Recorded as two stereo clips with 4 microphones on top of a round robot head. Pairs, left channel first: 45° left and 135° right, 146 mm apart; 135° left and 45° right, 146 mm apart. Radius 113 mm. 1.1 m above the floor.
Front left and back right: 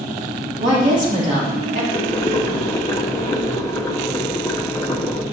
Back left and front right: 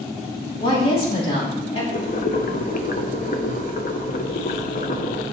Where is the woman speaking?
175° right, 3 m.